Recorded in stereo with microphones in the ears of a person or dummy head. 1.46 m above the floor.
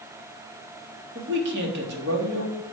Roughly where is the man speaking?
Right.